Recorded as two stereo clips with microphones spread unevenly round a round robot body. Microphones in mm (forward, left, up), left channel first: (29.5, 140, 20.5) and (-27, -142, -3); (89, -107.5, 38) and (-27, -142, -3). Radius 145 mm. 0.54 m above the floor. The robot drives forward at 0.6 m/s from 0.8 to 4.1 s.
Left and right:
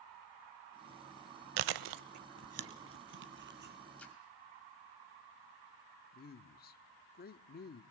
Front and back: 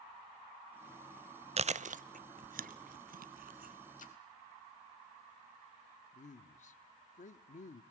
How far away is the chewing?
About 0.6 m.